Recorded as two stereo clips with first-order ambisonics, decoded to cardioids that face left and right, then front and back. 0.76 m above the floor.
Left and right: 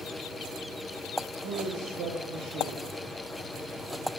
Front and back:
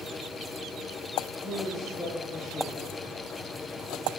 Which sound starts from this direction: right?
A man speaking, at 1.4 s.